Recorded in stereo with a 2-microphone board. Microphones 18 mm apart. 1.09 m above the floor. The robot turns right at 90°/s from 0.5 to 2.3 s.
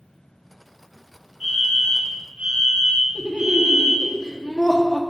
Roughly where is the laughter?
Left.